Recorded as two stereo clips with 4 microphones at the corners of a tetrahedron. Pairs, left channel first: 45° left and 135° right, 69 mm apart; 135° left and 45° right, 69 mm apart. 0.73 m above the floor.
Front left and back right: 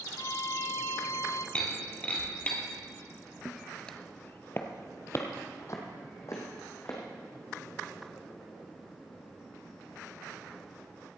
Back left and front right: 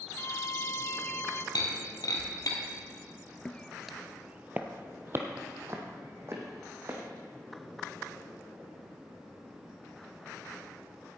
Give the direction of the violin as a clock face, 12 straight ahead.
9 o'clock.